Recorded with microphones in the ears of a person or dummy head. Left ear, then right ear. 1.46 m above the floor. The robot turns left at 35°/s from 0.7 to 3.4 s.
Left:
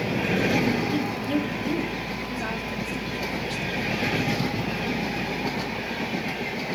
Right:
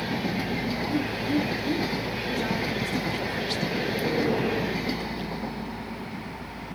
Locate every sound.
0.9 s a woman speaking: 55° left (ahead or behind), 3 m; by 3.6 s 35° right (ahead or behind), 3 m